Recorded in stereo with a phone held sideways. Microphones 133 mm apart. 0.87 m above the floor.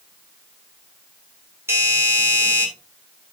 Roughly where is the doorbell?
Centre.